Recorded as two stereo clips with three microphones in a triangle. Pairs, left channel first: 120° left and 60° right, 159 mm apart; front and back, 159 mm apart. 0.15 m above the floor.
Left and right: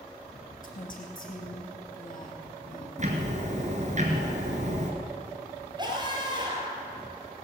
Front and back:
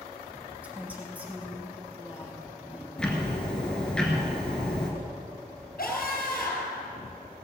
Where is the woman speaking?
100° left, 3 m.